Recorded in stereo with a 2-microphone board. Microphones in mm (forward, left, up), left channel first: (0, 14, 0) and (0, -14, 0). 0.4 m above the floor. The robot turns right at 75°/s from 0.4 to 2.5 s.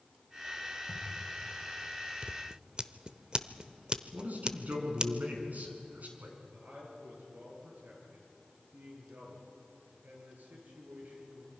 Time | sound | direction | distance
0.9 | a camera shutter | 80° left | 6.5 m
2.2 | scissors | 45° right (ahead or behind) | 0.7 m
4.1 | a man speaking | 65° right (ahead or behind) | 5 m
6.5 | a man speaking | 80° right | 7.5 m